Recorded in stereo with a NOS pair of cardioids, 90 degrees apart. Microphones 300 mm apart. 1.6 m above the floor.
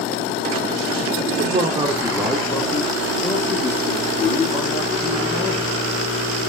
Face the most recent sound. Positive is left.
turn(degrees=55)